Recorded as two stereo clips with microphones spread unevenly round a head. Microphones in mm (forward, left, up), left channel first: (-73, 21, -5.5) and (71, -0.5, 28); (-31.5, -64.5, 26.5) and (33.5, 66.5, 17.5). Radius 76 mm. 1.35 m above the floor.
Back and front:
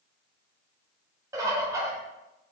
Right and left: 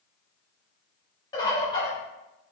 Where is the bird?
60° right, 1.1 m.